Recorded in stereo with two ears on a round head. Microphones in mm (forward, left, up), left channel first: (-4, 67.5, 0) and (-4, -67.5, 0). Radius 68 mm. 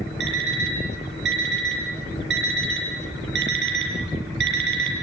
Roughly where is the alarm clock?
Right.